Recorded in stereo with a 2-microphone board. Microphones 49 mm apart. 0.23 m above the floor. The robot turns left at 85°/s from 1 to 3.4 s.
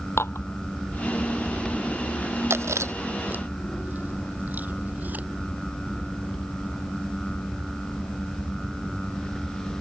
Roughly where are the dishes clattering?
Left.